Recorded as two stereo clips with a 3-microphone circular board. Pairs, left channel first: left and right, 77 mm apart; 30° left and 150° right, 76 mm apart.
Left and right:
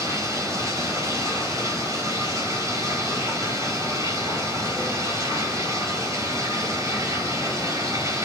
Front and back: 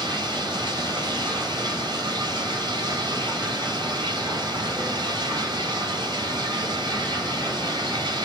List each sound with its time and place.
0.0 s running water: 135° right, 4 m